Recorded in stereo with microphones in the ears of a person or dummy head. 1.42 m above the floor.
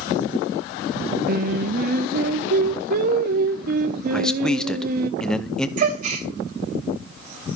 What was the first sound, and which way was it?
Singing, 55° right (ahead or behind).